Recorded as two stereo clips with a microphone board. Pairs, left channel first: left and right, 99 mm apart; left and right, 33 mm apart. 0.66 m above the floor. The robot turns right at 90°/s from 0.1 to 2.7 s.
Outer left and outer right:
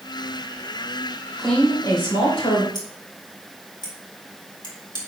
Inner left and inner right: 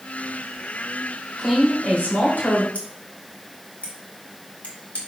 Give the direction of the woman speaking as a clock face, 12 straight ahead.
12 o'clock.